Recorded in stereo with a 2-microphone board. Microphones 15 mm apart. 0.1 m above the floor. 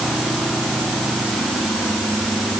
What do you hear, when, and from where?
Only background noise.